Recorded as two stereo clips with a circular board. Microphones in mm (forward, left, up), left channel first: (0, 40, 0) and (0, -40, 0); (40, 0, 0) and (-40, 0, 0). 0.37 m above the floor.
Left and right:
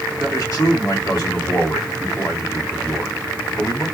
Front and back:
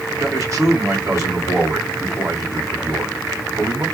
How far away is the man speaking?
About 3 m.